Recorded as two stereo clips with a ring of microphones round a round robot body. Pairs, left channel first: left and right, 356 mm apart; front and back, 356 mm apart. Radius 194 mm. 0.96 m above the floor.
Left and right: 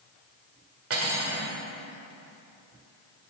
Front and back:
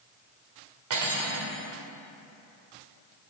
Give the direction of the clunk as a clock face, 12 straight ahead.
I don't hear a clunk.